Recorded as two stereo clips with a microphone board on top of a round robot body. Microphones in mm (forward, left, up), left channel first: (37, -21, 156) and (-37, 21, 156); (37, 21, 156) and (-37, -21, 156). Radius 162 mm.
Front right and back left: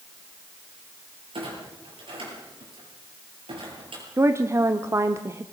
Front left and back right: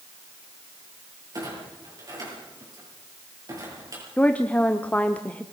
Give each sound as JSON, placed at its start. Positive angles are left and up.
{"t": 1.3, "sound": "a clunk", "azimuth_deg": 165, "distance_m": 8.5}
{"t": 4.2, "sound": "a woman speaking", "azimuth_deg": 100, "distance_m": 1.2}